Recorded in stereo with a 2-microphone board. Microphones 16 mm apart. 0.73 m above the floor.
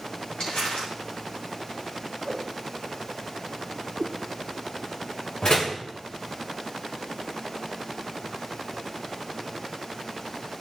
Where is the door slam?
55° left (ahead or behind), 2.5 m.